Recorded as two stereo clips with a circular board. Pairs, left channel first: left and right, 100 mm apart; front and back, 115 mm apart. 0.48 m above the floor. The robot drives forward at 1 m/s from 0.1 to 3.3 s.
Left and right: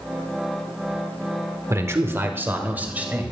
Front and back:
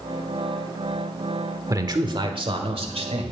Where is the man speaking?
135° right, 1.3 m; by 3.3 s 165° right, 2.5 m.